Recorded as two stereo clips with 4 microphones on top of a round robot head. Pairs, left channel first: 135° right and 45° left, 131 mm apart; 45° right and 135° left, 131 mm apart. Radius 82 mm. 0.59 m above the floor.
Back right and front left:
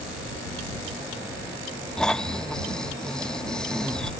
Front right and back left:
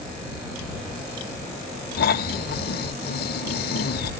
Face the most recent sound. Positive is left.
turn(degrees=-50)